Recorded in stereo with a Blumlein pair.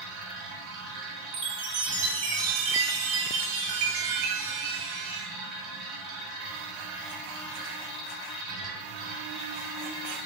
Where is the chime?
50° right, 1.7 m.